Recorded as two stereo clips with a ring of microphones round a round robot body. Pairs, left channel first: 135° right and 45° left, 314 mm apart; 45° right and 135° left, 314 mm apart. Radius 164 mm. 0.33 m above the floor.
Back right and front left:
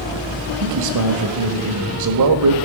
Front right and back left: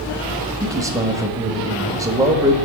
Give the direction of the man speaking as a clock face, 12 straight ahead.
10 o'clock.